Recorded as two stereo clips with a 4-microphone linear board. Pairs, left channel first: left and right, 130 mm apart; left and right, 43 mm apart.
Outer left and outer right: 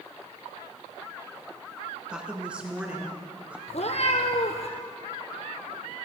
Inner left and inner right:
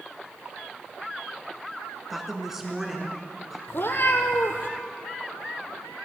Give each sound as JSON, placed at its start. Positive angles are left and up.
{"t": 2.1, "sound": "a woman speaking", "side_deg": -5, "distance_m": 2.5}
{"t": 3.7, "sound": "a cat meowing", "side_deg": 55, "distance_m": 1.7}